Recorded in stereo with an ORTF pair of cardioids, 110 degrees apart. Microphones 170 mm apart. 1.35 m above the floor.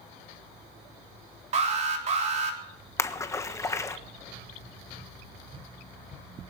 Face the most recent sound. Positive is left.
turn(degrees=15)